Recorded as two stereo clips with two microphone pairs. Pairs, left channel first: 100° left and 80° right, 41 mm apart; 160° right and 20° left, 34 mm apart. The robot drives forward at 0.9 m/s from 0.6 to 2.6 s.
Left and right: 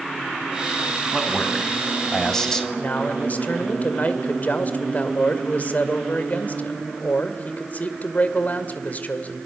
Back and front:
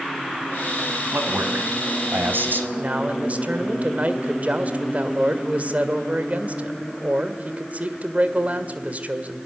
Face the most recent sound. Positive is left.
turn(degrees=60)